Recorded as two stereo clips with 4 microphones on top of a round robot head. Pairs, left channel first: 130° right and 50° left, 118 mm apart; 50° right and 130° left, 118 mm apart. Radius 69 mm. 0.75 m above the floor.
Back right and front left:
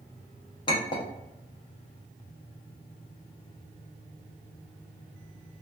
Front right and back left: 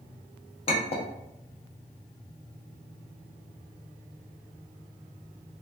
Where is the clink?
85° right, 0.6 m.